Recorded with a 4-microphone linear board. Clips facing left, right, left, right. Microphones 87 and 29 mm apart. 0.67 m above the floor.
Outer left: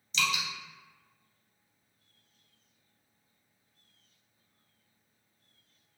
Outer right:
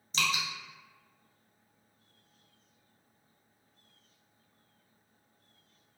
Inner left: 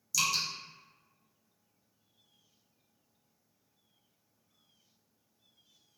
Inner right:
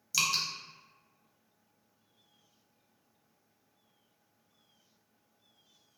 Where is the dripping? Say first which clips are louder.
Even, inner right 1 dB; 40° right (ahead or behind), 0.5 m.